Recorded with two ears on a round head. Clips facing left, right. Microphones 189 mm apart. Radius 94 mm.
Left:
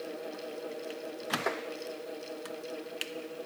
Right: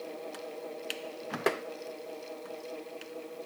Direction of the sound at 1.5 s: 45° right (ahead or behind).